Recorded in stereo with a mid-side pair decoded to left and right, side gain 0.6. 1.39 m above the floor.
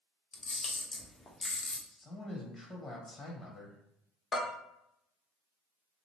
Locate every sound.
0.3 s a camera shutter: 35° left, 0.9 m
1.9 s a man speaking: 35° left, 1.5 m
4.3 s a bell: 35° left, 1.1 m